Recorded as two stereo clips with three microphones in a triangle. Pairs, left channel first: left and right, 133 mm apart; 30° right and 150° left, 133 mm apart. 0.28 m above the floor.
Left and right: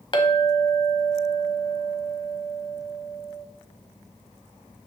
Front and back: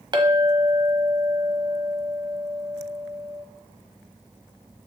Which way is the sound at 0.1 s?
115° left.